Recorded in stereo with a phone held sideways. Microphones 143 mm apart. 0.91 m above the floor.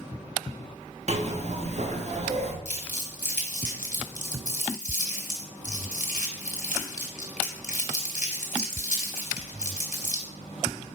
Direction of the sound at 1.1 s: 55° right (ahead or behind).